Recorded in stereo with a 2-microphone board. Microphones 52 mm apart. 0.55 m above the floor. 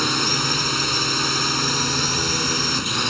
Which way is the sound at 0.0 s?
Centre (ahead or behind).